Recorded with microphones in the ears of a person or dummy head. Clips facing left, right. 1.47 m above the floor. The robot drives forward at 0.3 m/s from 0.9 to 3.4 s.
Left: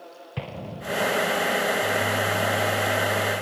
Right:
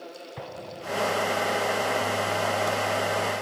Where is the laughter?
I don't hear laughter.